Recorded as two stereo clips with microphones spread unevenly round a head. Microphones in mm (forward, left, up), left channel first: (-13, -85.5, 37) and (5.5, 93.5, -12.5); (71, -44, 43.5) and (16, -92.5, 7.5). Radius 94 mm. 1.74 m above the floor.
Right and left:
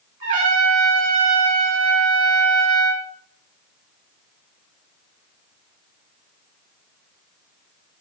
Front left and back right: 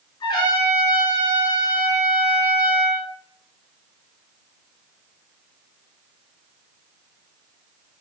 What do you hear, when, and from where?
0.2 s a trumpet: 50° left, 5.5 m